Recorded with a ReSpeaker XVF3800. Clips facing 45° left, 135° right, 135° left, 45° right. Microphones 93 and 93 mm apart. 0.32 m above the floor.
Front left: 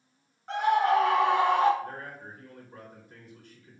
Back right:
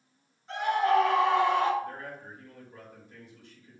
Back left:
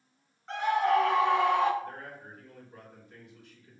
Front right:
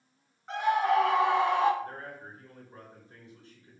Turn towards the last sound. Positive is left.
turn(degrees=15)